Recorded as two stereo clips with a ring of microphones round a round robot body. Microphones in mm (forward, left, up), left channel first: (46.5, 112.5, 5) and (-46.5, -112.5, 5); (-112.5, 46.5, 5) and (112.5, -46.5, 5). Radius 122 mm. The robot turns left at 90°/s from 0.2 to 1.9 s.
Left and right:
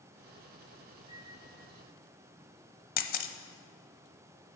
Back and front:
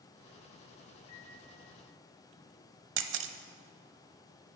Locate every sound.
1.1 s a microwave: 135° left, 2.5 m; by 1.4 s 105° left, 2.5 m
3.0 s a camera shutter: 15° left, 0.7 m